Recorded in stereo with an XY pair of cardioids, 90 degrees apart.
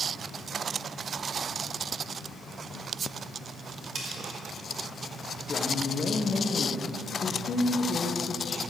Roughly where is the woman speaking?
Ahead left.